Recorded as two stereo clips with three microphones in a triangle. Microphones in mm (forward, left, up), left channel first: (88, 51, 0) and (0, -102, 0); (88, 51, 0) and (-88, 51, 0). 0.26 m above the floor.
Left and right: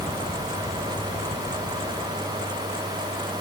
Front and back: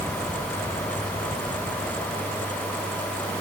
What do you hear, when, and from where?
Only background noise.